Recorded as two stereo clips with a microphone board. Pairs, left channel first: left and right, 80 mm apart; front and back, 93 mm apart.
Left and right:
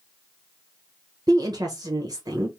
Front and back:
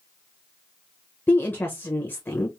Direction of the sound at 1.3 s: 65° right.